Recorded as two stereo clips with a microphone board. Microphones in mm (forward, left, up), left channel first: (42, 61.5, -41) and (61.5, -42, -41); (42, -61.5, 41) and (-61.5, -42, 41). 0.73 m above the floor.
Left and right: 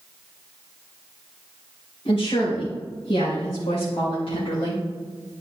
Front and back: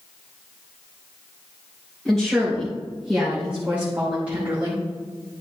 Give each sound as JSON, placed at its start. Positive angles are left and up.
{"t": 2.0, "sound": "a woman speaking", "azimuth_deg": 75, "distance_m": 3.5}